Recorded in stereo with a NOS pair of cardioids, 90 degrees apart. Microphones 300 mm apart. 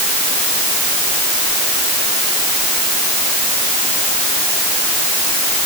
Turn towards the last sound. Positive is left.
No sound to turn to.